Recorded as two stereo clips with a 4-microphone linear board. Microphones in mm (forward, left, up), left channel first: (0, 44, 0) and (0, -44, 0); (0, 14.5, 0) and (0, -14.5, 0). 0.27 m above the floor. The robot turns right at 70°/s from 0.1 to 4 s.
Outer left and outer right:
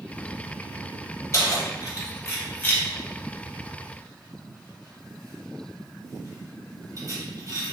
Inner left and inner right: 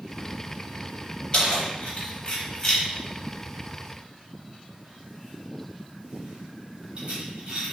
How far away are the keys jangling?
About 0.8 m.